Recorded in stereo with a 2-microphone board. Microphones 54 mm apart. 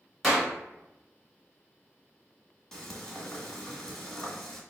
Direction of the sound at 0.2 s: 5° left (ahead or behind).